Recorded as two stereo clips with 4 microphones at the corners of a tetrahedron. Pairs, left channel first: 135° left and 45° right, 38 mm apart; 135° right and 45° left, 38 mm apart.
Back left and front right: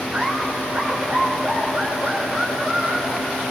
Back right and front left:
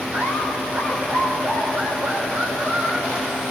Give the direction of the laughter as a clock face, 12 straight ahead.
11 o'clock.